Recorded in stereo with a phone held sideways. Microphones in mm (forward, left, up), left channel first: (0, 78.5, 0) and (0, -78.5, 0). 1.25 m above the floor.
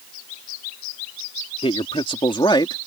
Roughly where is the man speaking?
Left.